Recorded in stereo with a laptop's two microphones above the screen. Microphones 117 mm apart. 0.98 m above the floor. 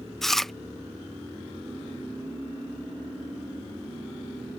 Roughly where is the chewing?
Centre.